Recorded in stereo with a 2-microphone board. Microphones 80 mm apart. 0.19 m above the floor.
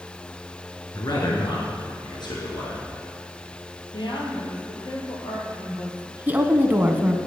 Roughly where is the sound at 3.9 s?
Left.